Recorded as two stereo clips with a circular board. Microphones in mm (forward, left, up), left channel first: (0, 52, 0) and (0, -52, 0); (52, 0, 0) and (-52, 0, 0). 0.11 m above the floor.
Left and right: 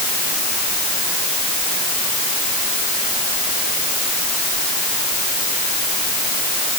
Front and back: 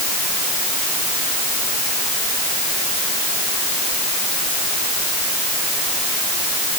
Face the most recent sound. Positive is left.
No sound to turn to.